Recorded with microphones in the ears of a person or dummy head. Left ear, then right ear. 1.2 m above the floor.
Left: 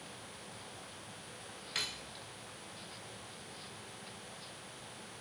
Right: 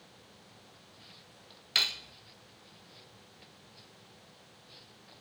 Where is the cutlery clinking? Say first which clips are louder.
Right 10 dB; 20° right (ahead or behind), 0.5 m.